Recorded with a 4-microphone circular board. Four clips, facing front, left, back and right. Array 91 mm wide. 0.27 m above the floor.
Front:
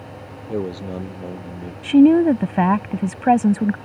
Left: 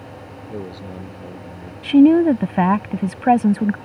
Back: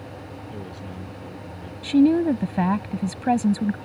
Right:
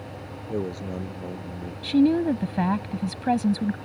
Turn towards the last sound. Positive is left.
turn(degrees=55)